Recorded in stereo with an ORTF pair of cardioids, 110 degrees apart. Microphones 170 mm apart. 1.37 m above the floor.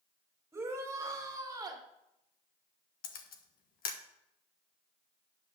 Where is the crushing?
No crushing in this recording.